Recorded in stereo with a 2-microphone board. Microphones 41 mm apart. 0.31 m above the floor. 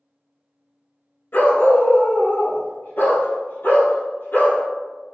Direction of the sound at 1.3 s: 65° left (ahead or behind).